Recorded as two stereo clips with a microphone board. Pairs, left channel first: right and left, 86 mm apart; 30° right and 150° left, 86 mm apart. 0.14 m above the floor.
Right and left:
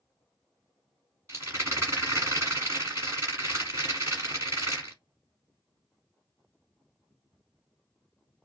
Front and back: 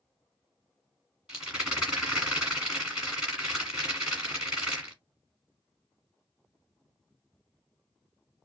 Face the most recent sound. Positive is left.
turn(degrees=80)